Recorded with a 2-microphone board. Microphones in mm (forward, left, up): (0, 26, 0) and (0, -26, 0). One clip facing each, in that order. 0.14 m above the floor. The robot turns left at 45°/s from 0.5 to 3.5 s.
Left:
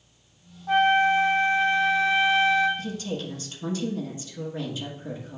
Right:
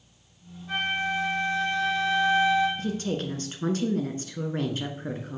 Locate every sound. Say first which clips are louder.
0.7 s a flute: left 9 dB; 65° left, 4 m; by 2.7 s 25° right, 4 m
2.8 s a woman speaking: right 2 dB; 55° right, 1.4 m; by 5.4 s 90° right, 1.4 m